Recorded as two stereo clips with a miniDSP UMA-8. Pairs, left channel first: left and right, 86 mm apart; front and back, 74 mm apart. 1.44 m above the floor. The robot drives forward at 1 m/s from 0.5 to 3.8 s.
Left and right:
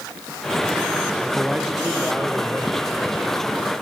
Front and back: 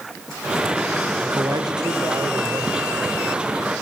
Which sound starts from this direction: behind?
A man speaking, at 1.2 s.